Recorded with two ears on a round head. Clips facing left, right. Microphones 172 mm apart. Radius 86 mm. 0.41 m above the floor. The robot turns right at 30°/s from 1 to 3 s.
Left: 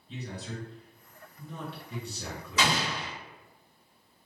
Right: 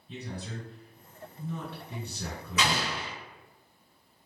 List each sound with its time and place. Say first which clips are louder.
0.1 s a man speaking: even; 90° right, 2.0 m; by 2.9 s 35° right, 2.0 m
2.6 s an explosion: left 1 dB; 25° left (ahead or behind), 1.6 m; by 3.1 s 35° left (ahead or behind), 1.6 m